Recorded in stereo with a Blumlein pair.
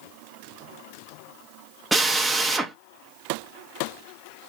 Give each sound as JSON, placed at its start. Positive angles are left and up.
{"t": 1.9, "sound": "a drill", "azimuth_deg": -10, "distance_m": 0.7}